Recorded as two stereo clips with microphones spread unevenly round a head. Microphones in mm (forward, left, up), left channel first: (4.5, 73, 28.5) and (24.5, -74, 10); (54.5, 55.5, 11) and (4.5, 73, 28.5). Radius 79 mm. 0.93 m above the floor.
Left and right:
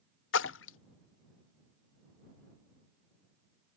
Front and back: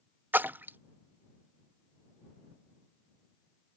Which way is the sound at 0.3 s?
110° left.